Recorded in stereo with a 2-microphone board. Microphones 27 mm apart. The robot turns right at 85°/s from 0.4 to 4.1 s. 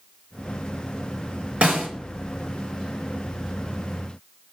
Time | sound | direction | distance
1.6 | a snare drum | 50° right (ahead or behind) | 4.5 m